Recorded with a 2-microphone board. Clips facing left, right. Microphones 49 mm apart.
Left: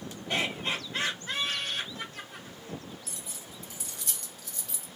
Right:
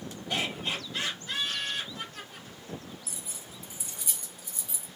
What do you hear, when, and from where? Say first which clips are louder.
0.3 s laughter: left 1 dB; 35° left (ahead or behind), 1.4 m
3.1 s keys jangling: even; 10° right (ahead or behind), 1.9 m